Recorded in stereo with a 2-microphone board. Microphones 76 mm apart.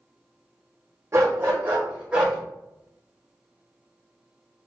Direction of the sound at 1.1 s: 40° right (ahead or behind).